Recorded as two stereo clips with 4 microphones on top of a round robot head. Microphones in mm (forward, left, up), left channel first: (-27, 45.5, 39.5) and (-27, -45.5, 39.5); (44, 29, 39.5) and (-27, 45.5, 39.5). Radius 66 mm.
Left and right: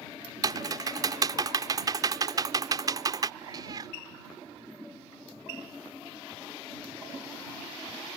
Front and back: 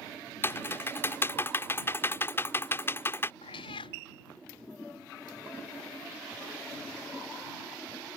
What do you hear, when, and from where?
0.4 s typing on a keyboard: 60° right
3.4 s a cat meowing: 35° right